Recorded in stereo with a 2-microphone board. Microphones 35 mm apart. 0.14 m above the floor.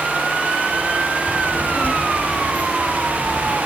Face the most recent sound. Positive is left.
turn(degrees=50)  # may be behind; listen again after turning